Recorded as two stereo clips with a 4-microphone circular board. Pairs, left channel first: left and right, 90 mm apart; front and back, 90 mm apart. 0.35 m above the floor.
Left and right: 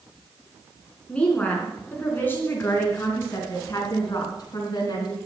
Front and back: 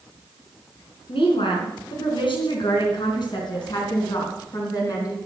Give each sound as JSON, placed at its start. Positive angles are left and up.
{"t": 1.1, "sound": "a woman speaking", "azimuth_deg": 10, "distance_m": 4.0}